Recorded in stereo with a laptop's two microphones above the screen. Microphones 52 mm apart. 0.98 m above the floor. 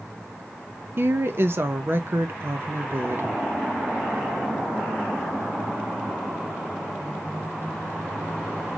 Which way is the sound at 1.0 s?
50° right (ahead or behind).